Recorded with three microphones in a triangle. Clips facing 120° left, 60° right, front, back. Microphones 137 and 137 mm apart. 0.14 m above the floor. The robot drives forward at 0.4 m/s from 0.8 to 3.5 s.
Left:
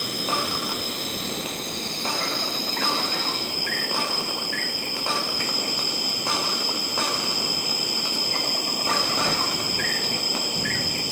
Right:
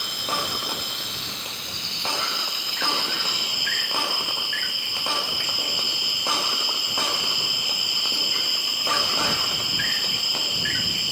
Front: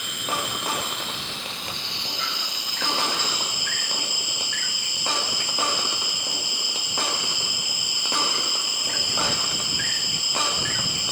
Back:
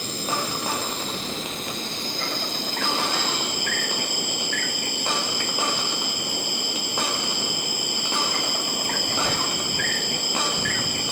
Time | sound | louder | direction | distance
0.0 | an insect | left 3 dB, back 2 dB | 140° left | ?